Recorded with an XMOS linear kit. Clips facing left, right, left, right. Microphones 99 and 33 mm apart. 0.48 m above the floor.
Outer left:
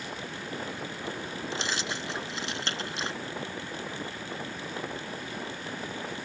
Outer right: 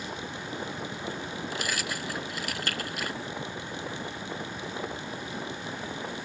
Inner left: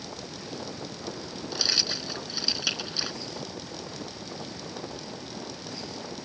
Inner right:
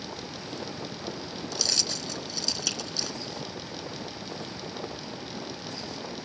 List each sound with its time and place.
1.5 s keys jangling: 25° left (ahead or behind)